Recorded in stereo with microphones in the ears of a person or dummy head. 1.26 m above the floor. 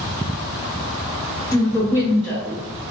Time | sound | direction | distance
1.5 | a woman speaking | 15° left (ahead or behind) | 1.3 m